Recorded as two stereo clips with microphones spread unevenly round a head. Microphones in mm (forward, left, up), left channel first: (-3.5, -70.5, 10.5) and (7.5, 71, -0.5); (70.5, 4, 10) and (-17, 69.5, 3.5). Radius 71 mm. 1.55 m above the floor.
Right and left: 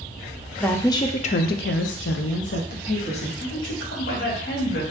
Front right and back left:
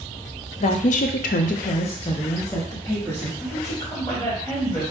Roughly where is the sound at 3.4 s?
Right.